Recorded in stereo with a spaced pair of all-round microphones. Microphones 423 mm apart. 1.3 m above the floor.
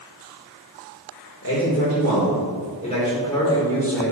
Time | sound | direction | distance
1.4 | a man speaking | 35° left (ahead or behind) | 3.5 m